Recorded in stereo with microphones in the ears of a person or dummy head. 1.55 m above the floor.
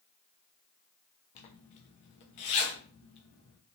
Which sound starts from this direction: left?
A zipper, at 1.4 s.